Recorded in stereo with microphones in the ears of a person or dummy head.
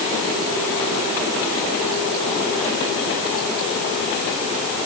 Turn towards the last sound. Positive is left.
No sound to turn to.